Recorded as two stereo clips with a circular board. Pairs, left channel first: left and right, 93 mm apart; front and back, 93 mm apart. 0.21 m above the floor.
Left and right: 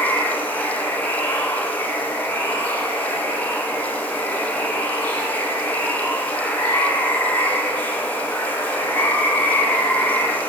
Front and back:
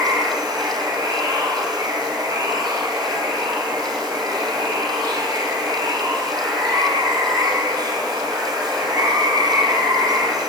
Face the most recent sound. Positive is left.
turn(degrees=155)